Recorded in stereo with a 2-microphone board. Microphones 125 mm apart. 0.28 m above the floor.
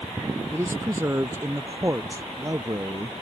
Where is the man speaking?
20° right (ahead or behind); by 3.2 s 30° right (ahead or behind).